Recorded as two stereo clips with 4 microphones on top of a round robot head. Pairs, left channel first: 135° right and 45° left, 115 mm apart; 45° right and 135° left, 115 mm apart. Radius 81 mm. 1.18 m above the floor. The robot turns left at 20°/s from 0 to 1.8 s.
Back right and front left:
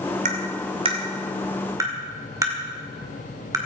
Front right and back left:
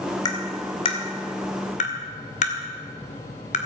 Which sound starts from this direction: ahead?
Tapping, at 0.2 s.